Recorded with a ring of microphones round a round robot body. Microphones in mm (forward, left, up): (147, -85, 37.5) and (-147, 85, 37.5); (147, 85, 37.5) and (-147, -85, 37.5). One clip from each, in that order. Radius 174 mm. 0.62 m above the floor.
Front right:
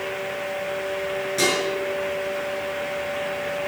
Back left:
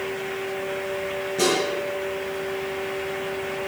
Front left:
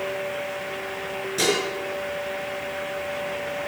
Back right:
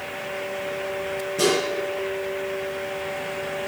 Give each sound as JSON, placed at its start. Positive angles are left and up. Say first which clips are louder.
{"t": 1.4, "sound": "dishes clattering", "louder": "even, back right 1 dB", "azimuth_deg": 0, "distance_m": 6.0}